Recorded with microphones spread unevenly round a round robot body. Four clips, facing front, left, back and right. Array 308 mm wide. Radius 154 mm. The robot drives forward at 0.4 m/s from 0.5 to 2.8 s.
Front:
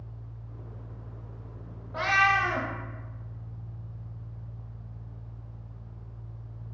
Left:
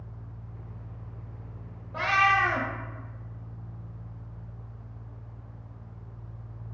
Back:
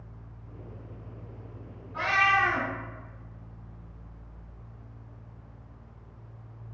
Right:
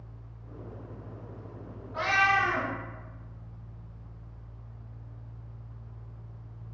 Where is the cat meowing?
40° left, 0.5 m; by 2.7 s 105° left, 0.5 m.